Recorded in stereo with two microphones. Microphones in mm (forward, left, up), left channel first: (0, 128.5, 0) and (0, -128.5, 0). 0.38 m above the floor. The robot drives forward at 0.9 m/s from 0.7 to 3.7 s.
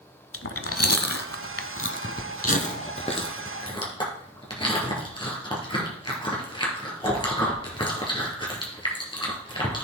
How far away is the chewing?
About 0.9 m.